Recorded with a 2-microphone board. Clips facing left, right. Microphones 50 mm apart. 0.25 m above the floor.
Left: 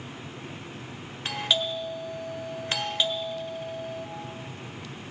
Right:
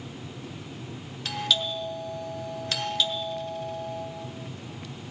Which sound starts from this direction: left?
A doorbell, at 1.2 s.